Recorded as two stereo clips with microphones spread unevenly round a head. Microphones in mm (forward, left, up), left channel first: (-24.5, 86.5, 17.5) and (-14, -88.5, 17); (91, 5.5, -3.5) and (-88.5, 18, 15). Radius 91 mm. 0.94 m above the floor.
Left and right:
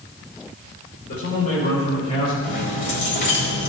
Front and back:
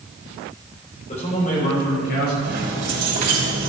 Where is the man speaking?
50° left, 4 m; by 2.3 s 30° left, 4.5 m.